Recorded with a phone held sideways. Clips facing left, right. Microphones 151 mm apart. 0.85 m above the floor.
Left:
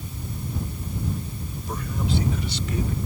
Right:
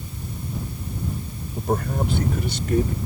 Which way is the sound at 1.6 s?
55° right (ahead or behind).